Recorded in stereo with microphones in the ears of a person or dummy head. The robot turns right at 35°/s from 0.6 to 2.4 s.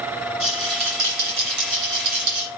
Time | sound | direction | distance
0.4 | a rattle | 125° right | 4 m